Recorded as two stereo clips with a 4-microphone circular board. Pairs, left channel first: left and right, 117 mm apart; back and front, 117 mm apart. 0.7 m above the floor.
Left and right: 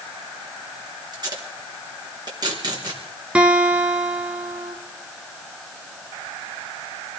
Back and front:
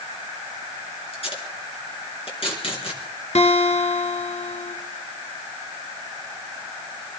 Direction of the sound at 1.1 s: 145° right.